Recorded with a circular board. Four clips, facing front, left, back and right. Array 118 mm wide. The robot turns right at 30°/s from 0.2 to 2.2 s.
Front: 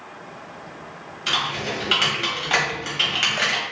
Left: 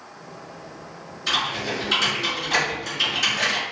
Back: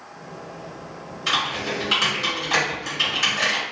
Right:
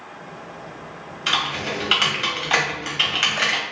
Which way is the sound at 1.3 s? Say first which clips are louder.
Right 1 dB, back 1 dB; 90° right.